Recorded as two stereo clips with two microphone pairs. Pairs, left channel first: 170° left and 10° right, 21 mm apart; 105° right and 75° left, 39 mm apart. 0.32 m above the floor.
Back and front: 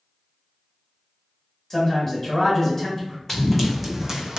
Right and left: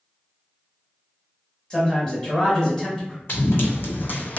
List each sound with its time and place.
1.7 s a man speaking: 145° right, 1.5 m
3.3 s running footsteps: 115° right, 1.0 m; by 4.4 s 60° right, 0.6 m